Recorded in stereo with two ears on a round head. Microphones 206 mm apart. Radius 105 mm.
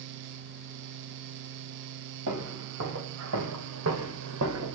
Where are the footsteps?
55° right (ahead or behind), 3.5 m; by 4.8 s 60° right (ahead or behind), 1.9 m.